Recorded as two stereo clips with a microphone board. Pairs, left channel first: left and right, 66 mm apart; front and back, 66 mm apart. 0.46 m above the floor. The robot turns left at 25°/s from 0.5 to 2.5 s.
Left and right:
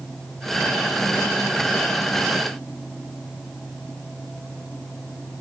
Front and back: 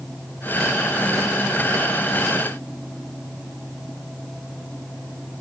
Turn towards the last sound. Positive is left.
No sound to turn to.